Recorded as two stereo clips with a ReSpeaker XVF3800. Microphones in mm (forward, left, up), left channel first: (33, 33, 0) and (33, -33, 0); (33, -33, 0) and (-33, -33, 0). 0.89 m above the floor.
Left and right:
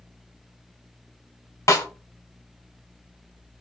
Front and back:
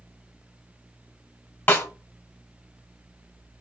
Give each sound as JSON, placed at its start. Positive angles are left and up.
{"t": 1.7, "sound": "a snare drum", "azimuth_deg": 50, "distance_m": 1.0}